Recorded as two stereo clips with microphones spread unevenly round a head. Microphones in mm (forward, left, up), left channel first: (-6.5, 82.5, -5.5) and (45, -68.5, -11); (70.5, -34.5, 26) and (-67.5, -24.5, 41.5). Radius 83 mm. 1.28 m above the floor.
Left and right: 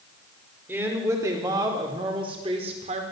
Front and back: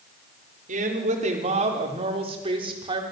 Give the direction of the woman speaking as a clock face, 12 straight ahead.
5 o'clock.